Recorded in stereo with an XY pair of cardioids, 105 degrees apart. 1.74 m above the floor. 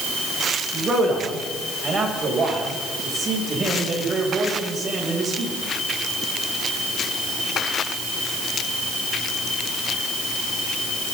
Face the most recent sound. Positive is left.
turn(degrees=-35)